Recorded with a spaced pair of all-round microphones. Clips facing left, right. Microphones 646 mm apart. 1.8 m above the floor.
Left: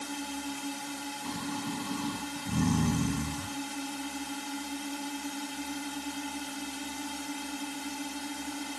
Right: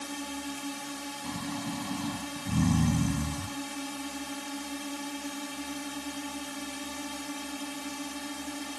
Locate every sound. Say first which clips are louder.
0.0 s a drone: even; 5° right (ahead or behind)
1.2 s snoring: even; 15° right (ahead or behind)